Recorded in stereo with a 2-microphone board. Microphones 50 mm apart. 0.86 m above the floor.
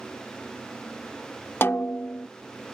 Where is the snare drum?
55° left (ahead or behind).